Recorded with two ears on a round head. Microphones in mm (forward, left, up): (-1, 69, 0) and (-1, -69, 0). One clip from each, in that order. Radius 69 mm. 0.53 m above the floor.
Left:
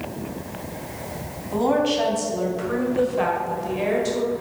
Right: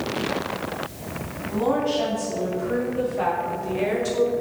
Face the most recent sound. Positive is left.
turn(degrees=-10)  # may be behind; listen again after turning